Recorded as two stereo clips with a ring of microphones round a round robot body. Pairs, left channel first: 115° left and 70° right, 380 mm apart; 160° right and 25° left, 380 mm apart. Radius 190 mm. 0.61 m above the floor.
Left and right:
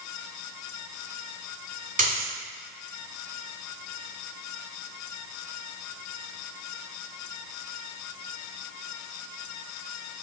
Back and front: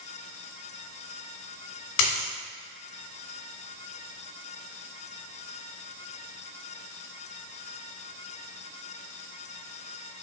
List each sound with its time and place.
2.0 s a dropped coin: 140° right, 1.9 m